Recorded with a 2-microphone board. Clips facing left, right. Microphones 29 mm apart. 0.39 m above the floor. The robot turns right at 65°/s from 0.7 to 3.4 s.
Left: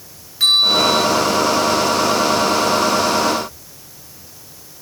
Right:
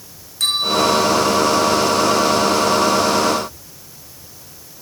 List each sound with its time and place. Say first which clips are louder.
0.4 s a bell: left 4 dB; 20° left (ahead or behind), 5.5 m; by 1.0 s 40° left (ahead or behind), 5.5 m